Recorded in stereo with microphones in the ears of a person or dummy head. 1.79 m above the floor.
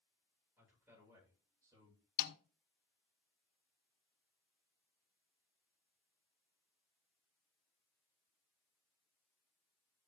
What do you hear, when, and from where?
0.6 s a man speaking: 15° right (ahead or behind), 8.5 m; by 2.0 s 25° right (ahead or behind), 9.5 m
2.2 s a snare drum: 60° left (ahead or behind), 1.1 m